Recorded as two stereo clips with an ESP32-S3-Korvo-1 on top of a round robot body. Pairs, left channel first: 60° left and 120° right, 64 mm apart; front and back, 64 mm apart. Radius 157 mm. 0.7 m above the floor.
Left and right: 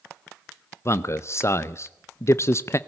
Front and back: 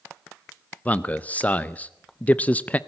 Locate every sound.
0.8 s a man speaking: 60° left, 0.7 m